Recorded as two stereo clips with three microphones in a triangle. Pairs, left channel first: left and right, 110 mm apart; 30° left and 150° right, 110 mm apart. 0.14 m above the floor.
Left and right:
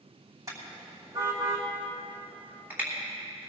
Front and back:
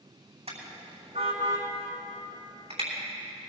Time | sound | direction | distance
0.5 | a car horn | 150° right | 5 m